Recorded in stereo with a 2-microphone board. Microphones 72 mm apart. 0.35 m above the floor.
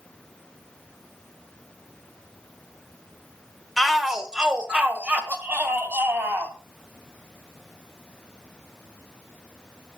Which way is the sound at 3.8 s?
Centre (ahead or behind).